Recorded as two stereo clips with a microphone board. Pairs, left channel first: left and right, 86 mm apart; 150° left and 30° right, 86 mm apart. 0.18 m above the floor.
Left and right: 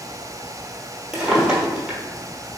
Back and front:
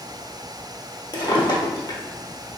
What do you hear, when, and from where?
1.1 s a drawer: 170° right, 1.0 m